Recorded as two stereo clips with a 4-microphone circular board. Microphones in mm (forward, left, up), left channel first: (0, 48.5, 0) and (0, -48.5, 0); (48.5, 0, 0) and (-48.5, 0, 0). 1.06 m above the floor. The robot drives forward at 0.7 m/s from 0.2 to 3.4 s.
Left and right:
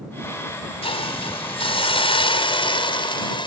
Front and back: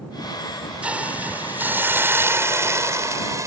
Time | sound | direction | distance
0.8 | a hiss | 100° left | ?